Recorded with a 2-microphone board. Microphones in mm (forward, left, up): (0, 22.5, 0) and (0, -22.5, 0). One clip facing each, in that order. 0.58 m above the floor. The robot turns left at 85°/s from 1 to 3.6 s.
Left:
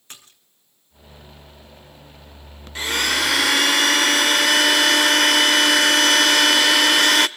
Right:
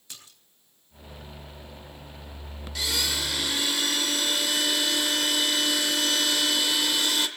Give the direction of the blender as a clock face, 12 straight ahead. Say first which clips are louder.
Left 8 dB; 7 o'clock.